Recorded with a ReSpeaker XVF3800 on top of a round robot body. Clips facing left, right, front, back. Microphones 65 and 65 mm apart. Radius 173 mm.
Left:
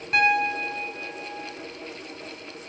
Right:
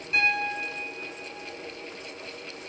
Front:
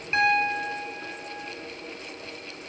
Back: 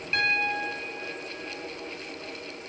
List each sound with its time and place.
0.1 s a piano: 65° left, 0.8 m